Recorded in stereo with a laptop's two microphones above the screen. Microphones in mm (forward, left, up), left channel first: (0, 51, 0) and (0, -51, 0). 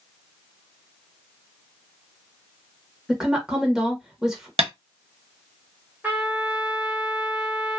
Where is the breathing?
I don't hear breathing.